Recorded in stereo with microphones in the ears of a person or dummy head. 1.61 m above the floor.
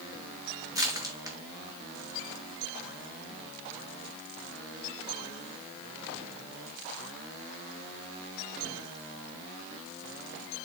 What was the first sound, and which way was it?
Crushing, 20° right (ahead or behind).